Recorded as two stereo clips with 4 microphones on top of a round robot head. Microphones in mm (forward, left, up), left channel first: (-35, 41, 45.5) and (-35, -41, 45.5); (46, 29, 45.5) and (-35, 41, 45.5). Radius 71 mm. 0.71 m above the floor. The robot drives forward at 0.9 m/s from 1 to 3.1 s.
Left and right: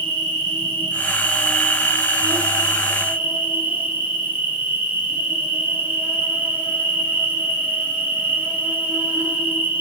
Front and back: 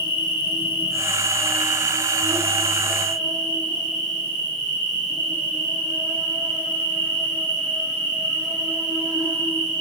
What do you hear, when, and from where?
0.0 s an insect: 50° right, 0.7 m; by 9.8 s 160° right, 1.5 m